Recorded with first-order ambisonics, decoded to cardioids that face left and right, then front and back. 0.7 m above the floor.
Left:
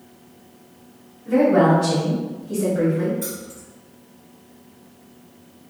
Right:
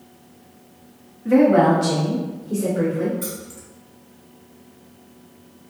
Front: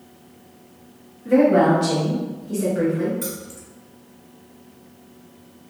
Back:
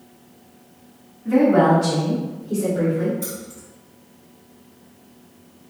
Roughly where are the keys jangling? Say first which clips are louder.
Left 1 dB, front 1 dB; ahead.